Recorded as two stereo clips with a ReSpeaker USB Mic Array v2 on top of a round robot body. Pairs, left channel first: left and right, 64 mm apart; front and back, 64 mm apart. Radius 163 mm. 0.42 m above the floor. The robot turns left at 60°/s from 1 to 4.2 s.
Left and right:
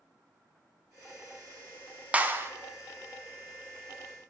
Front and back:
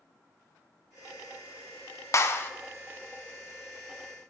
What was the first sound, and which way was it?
A clap, 25° right.